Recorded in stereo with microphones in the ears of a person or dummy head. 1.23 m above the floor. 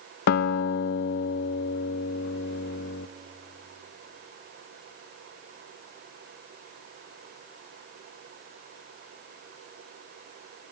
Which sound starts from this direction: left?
A guitar, at 0.3 s.